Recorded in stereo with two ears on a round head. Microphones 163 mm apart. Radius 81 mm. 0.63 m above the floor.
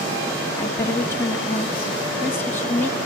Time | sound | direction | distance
0.6 | a woman speaking | 15° left (ahead or behind) | 1.2 m